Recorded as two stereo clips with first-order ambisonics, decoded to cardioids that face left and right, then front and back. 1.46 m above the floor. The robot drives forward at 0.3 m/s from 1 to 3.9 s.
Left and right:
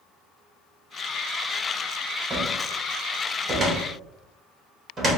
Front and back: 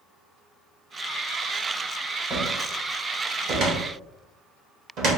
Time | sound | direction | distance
2.3 | a cupboard door | 140° right | 0.8 m